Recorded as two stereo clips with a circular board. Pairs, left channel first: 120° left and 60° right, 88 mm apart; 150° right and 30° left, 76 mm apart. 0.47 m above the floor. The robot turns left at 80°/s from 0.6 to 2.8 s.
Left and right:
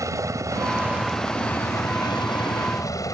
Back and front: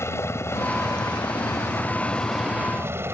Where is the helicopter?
105° right; by 3.1 s 80° left.